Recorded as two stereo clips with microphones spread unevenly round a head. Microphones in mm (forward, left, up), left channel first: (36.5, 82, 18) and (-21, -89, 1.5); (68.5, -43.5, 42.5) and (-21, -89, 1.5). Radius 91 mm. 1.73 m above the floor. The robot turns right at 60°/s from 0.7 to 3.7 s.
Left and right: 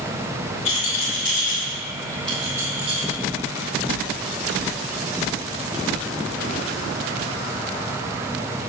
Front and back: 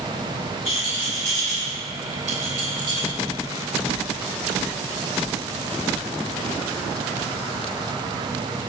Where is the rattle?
60° left, 3 m; by 3.1 s 160° right, 3 m.